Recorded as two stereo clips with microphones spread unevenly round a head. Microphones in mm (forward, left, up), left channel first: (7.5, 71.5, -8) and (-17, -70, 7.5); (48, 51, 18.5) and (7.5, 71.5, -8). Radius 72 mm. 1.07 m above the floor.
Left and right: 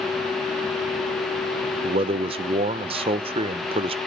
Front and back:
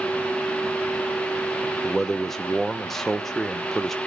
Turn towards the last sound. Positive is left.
turn(degrees=-145)